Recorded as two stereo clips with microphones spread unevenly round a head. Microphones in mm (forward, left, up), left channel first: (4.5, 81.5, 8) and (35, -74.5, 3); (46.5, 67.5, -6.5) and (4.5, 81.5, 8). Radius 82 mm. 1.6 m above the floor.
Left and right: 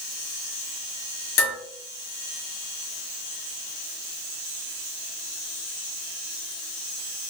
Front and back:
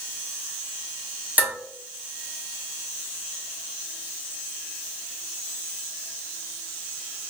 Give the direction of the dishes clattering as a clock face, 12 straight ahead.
8 o'clock.